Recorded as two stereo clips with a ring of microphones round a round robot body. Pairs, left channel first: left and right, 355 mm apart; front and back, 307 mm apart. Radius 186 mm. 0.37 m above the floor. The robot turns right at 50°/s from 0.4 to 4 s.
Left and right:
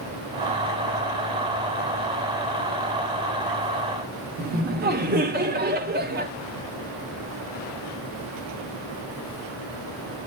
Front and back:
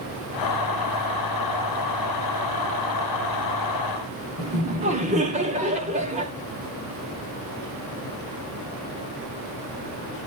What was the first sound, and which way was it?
Laughter, 130° right.